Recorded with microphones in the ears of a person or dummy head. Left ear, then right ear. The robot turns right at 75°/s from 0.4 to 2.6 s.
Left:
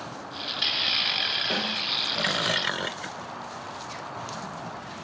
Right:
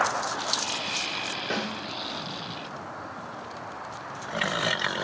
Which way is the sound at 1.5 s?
30° right (ahead or behind).